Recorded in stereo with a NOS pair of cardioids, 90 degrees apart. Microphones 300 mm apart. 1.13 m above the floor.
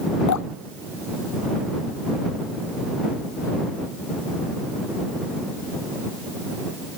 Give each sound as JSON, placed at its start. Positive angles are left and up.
{"t": 0.3, "sound": "dripping", "azimuth_deg": 70}